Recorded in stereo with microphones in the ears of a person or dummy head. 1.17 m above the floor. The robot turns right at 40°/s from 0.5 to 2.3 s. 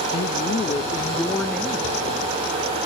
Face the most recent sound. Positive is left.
turn(degrees=-155)